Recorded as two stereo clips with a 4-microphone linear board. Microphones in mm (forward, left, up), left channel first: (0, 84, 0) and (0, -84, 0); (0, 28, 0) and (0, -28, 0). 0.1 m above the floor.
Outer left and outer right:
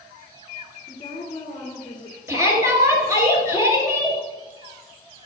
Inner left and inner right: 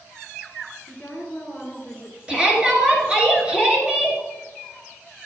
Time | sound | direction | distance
0.9 | a woman speaking | 25° left (ahead or behind) | 1.6 m
2.3 | a shout | 20° right (ahead or behind) | 1.8 m